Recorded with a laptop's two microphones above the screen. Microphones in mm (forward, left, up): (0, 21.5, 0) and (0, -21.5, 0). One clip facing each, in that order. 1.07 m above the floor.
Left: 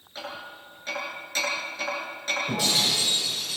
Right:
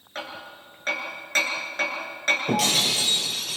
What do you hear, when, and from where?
0.1 s hammering: 55° right (ahead or behind), 8.5 m
2.5 s breaking glass: 85° right, 6.5 m